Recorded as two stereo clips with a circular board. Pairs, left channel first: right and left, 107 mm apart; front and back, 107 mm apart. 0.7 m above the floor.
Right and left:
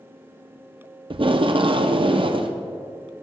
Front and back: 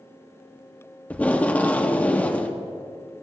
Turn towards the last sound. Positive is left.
turn(degrees=75)